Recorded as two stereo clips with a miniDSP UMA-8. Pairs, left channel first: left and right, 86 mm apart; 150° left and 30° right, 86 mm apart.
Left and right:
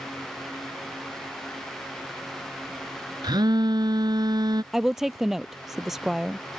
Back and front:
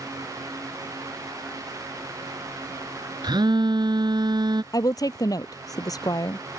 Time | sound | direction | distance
3.2 | a phone buzzing | 60° right | ?
4.7 | a woman speaking | 175° right | ?